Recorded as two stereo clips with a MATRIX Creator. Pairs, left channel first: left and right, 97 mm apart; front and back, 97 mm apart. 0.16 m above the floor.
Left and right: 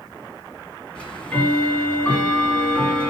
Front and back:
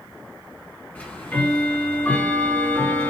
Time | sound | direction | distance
0.9 | ticking | 35° left | 1.5 m